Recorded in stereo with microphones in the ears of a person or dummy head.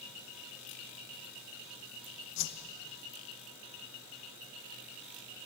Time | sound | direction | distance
2.4 | a whoosh | 60° left (ahead or behind) | 1.0 m